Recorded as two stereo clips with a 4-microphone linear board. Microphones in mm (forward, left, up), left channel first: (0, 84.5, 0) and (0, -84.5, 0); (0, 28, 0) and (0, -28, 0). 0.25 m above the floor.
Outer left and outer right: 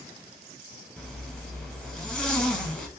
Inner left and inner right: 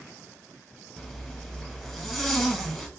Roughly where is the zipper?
Centre.